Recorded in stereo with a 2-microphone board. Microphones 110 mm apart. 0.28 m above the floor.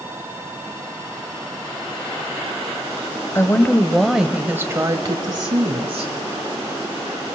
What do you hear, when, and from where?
3.4 s a woman speaking: 25° left (ahead or behind), 1.1 m; by 6.1 s 55° right (ahead or behind), 1.7 m